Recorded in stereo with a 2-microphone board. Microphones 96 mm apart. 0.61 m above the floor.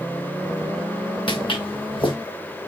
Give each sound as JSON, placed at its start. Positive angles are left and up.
{"t": 1.3, "sound": "footsteps", "side_deg": 55, "distance_m": 3.5}